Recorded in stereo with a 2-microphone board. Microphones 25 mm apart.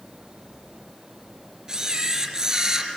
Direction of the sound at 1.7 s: 30° right (ahead or behind).